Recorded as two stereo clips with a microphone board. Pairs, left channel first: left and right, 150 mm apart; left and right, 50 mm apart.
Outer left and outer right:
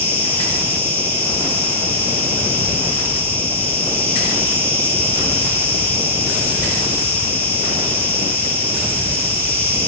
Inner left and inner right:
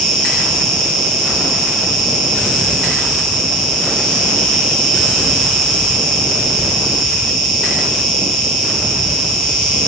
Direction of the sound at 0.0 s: 10° left (ahead or behind).